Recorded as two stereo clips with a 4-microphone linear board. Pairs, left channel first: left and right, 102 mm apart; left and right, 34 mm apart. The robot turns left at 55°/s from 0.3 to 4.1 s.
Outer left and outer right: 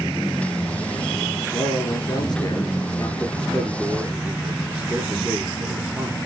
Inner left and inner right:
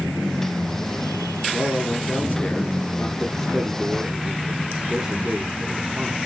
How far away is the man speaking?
About 2 m.